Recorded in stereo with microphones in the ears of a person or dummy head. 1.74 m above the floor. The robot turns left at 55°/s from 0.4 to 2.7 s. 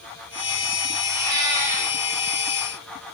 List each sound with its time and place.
1.1 s a cat meowing: 100° right, 4.5 m; by 1.9 s 145° right, 4.5 m